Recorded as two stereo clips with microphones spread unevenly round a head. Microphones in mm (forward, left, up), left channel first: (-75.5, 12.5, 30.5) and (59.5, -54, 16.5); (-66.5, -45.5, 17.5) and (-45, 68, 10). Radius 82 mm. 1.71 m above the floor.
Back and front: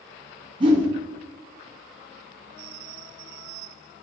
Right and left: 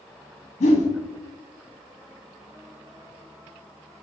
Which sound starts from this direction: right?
A whoosh, at 0.6 s.